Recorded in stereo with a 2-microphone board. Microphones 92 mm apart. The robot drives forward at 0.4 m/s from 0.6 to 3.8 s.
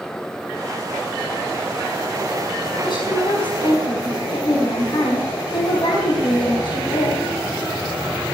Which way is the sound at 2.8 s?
60° left (ahead or behind).